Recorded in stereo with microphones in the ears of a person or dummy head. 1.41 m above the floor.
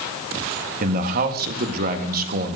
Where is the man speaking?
45° right (ahead or behind), 1.6 m.